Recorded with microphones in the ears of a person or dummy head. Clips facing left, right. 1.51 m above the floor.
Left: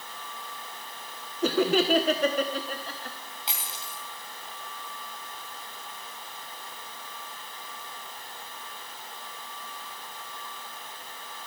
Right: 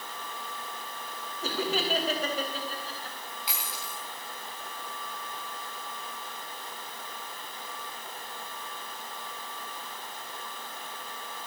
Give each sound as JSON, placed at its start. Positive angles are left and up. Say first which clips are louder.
{"t": 1.4, "sound": "laughter", "louder": "left 8 dB", "side_deg": 50, "distance_m": 1.1}
{"t": 3.5, "sound": "a dropped coin", "louder": "left 1 dB", "side_deg": 25, "distance_m": 2.0}